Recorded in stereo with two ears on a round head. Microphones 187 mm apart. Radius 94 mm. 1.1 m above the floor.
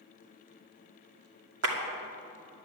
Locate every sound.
1.6 s a clap: 65° right (ahead or behind), 2.5 m